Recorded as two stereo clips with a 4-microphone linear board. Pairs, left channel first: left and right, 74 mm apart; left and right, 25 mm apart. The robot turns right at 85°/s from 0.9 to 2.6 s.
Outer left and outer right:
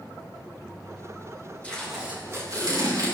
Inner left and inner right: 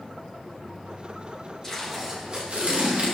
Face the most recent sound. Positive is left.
turn(degrees=-115)